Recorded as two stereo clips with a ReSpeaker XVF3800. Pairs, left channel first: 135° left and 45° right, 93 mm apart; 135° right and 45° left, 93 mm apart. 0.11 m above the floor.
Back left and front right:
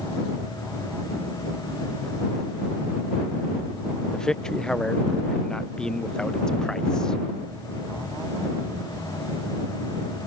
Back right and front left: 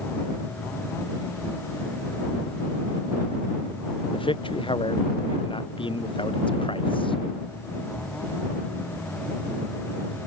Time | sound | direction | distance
4.1 | a man speaking | 145° right | ?